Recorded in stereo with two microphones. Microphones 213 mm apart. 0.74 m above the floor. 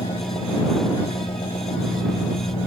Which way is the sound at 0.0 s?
25° left (ahead or behind).